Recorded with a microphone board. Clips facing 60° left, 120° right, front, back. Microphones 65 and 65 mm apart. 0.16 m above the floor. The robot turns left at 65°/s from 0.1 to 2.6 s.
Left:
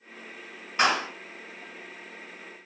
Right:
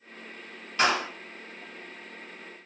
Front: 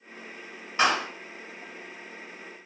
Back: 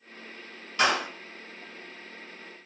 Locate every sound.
0.8 s a clap: 20° left, 1.5 m; by 1.1 s straight ahead, 1.5 m